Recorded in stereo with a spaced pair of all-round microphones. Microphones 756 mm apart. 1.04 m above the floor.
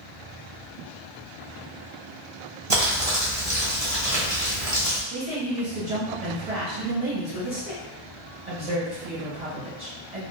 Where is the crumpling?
45° right (ahead or behind), 1.2 m.